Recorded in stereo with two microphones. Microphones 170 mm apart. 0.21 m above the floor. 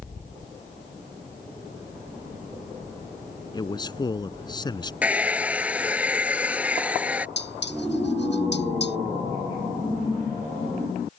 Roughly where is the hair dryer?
Centre.